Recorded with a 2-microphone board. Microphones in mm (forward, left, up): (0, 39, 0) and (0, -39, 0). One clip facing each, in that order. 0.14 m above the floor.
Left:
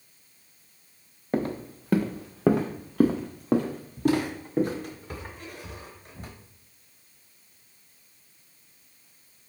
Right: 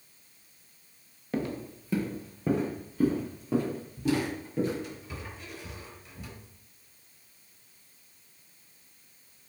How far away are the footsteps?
About 0.7 m.